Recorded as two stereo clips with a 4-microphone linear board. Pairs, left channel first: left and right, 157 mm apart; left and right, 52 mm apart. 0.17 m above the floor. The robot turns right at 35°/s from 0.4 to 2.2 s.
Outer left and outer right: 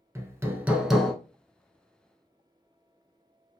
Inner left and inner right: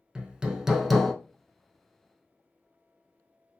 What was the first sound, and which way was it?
Hammering, 15° right (ahead or behind).